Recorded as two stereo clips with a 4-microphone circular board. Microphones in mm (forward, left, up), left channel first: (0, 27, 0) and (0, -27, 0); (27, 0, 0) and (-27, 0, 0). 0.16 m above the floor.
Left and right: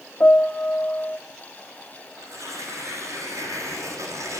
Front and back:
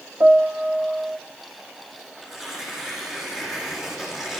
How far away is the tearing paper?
About 8.5 m.